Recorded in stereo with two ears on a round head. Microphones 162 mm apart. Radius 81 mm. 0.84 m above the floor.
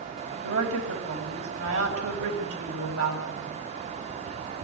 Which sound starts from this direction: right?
A woman speaking, at 0.4 s.